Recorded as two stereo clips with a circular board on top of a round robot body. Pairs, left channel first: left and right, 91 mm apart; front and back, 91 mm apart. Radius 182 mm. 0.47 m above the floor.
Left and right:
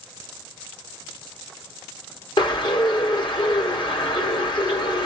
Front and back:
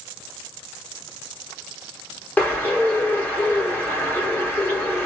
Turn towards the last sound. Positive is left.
turn(degrees=65)